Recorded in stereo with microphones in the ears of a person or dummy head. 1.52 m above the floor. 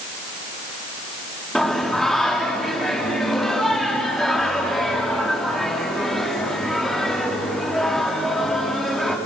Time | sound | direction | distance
1.6 | singing | 5° left (ahead or behind) | 3 m